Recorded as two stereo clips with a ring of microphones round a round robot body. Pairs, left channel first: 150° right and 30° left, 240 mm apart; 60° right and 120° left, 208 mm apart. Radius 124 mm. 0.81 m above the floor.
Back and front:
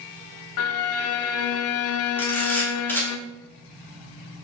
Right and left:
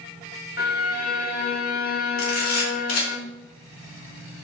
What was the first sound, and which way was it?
A violin, 120° right.